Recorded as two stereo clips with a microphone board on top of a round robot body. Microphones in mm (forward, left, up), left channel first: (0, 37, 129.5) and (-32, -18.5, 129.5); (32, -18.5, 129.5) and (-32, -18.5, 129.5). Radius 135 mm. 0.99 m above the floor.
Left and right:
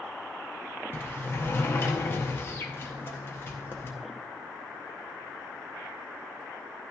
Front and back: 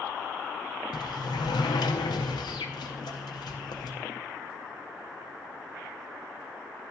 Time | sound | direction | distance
0.9 | a sliding door | straight ahead | 0.7 m